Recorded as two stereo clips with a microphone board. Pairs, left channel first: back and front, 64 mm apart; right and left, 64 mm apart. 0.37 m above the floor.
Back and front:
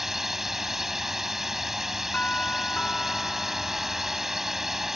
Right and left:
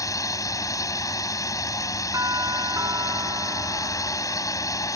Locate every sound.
0.0 s a drone: 85° right
2.1 s a doorbell: 115° left